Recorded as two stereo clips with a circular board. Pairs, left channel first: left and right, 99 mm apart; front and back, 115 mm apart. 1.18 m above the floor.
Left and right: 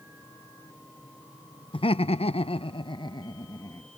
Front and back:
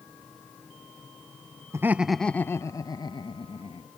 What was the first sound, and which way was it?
Laughter, 115° left.